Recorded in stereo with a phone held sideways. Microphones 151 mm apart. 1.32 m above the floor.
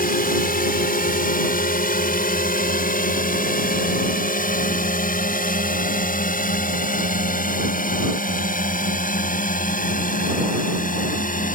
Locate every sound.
0.0 s a drone: 75° left (ahead or behind); by 11.6 s 65° left (ahead or behind)